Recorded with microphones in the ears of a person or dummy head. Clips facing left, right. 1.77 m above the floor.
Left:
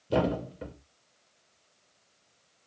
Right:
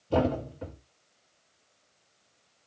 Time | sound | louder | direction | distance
0.1 | a thud | right 1 dB | 25° left (ahead or behind) | 1.3 m